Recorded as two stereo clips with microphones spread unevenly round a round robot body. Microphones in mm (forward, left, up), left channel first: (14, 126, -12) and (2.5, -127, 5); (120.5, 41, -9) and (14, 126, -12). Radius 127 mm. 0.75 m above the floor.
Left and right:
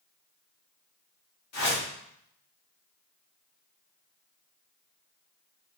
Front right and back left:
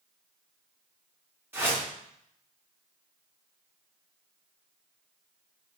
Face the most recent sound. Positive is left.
turn(degrees=65)